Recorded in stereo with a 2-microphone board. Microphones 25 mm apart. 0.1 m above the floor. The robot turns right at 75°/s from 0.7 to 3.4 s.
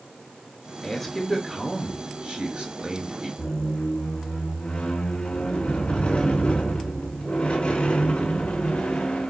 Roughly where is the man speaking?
Behind left.